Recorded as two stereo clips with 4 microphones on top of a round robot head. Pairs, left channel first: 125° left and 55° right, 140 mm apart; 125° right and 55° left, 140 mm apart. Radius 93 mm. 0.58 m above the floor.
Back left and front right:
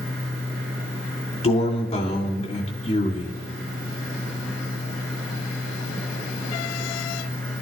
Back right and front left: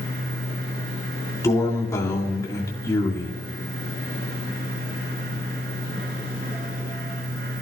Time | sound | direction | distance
1.4 | a man speaking | 165° left | 2.5 m